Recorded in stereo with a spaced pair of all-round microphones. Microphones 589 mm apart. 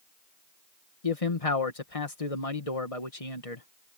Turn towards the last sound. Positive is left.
turn(degrees=70)  # may be behind; listen again after turning